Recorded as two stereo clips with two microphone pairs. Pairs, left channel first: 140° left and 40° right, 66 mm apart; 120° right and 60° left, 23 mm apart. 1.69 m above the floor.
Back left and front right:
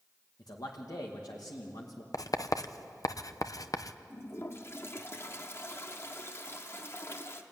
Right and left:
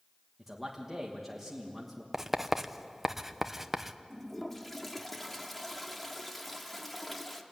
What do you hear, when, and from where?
0.4 s a man speaking: 140° left, 2.5 m
2.1 s writing: 135° left, 0.9 m
4.1 s a toilet flushing: 160° left, 1.5 m